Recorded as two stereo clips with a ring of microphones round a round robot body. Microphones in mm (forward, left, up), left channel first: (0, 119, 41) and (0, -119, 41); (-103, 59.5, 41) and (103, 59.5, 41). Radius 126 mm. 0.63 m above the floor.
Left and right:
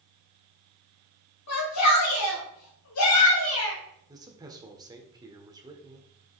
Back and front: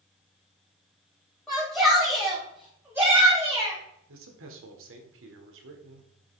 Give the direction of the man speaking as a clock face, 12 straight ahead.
1 o'clock.